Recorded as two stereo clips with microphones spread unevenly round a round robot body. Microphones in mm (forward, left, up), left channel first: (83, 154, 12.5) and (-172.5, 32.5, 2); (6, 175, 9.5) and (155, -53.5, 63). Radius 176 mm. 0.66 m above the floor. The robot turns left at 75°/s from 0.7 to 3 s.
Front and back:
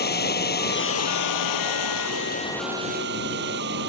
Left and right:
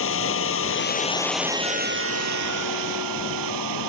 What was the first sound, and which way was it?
Running water, 80° left.